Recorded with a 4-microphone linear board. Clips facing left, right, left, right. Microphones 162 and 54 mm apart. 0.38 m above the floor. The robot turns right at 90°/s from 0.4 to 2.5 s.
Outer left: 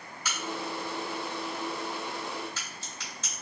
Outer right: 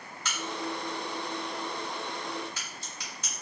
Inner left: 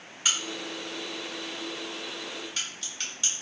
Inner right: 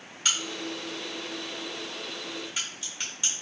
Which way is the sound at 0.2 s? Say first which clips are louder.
Even, even; 10° left (ahead or behind).